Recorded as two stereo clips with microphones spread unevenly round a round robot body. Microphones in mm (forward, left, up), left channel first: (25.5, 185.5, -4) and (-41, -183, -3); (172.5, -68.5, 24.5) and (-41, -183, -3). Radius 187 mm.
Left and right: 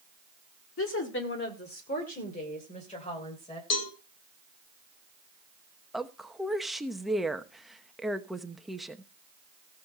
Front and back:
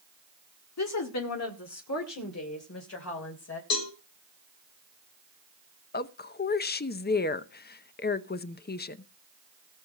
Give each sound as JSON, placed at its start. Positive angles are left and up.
{"t": 0.8, "sound": "a woman speaking", "azimuth_deg": 20, "distance_m": 1.5}
{"t": 3.7, "sound": "a cowbell", "azimuth_deg": 30, "distance_m": 3.5}
{"t": 5.9, "sound": "a woman speaking", "azimuth_deg": -10, "distance_m": 0.8}